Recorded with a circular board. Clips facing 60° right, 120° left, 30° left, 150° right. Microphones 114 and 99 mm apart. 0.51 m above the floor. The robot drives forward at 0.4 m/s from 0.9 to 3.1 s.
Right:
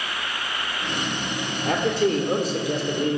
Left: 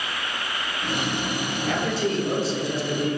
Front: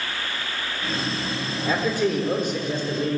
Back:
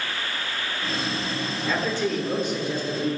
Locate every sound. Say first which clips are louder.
1.6 s a man speaking: right 4 dB, front 3 dB; 45° right, 1.5 m; by 3.2 s 70° right, 1.2 m